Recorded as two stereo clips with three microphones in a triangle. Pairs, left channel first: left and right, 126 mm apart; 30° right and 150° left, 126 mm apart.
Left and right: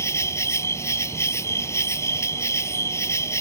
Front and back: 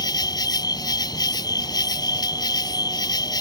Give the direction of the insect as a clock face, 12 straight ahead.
11 o'clock.